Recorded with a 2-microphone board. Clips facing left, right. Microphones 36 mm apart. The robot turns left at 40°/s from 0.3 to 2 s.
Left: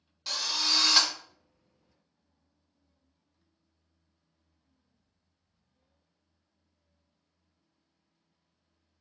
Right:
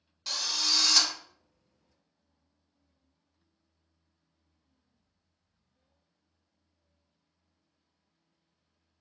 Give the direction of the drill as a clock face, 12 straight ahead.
6 o'clock.